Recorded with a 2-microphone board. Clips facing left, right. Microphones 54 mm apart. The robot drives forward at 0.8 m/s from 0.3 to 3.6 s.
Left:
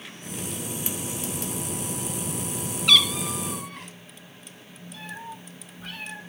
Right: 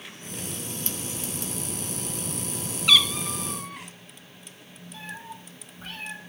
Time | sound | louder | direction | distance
2.9 | a cat meowing | even | 5° right (ahead or behind) | 0.7 m
4.9 | a cat meowing | left 1 dB | 35° right (ahead or behind) | 7.5 m